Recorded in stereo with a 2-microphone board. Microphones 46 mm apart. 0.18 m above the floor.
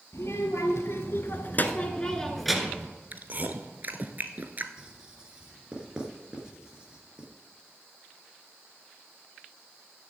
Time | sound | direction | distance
0.1 | a child speaking | 75° left (ahead or behind) | 2.5 m
3.1 | chewing | 40° right (ahead or behind) | 0.9 m
4.8 | writing | 20° right (ahead or behind) | 2.5 m